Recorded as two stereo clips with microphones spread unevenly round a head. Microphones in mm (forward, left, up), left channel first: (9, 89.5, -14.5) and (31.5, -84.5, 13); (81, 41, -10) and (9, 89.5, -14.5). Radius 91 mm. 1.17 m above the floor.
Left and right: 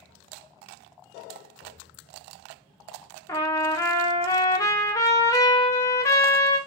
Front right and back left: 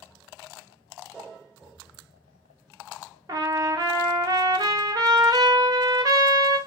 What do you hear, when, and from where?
3.3 s a trumpet: 175° left, 0.5 m